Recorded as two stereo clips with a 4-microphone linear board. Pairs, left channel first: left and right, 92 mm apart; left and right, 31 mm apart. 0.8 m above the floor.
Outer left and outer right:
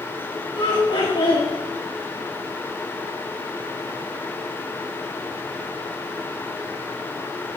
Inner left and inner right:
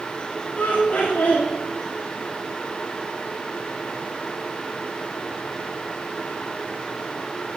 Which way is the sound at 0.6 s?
55° left (ahead or behind).